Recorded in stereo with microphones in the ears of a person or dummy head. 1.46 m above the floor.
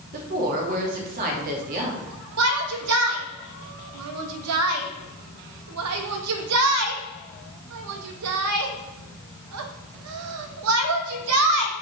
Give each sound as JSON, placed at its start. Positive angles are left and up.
{"t": 0.1, "sound": "a woman speaking", "side_deg": -45, "distance_m": 2.5}
{"t": 2.4, "sound": "a shout", "side_deg": -75, "distance_m": 1.6}